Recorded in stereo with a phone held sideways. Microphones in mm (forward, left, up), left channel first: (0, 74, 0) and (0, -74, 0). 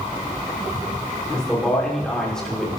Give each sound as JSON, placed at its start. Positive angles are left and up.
{"t": 1.3, "sound": "a man speaking", "side_deg": 5, "distance_m": 5.5}